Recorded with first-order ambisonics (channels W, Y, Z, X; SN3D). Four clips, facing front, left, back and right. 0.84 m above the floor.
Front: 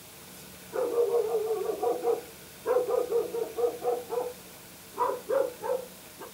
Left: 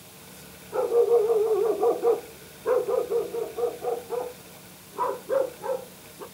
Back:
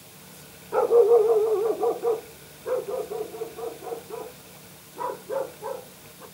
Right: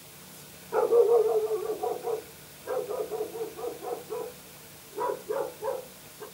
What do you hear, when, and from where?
0.7 s a dog barking: 165° right, 0.9 m; by 6.2 s 60° left, 3.5 m